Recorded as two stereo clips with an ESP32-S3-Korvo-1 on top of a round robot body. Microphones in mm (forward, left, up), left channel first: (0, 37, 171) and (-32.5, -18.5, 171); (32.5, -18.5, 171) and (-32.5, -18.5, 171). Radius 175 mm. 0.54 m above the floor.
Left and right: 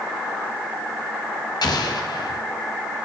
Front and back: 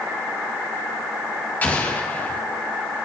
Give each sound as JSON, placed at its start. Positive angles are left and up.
{"t": 1.6, "sound": "an explosion", "azimuth_deg": 65, "distance_m": 1.8}